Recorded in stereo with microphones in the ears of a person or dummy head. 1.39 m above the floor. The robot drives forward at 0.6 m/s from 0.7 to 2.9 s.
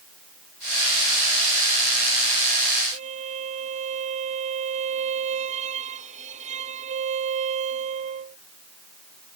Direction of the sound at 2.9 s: 45° right (ahead or behind).